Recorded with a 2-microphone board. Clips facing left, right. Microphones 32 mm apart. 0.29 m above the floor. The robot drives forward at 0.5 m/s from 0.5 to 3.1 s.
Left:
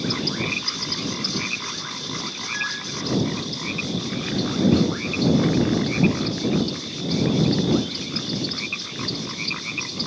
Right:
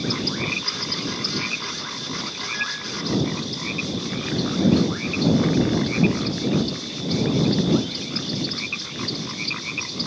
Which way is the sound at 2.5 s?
Centre (ahead or behind).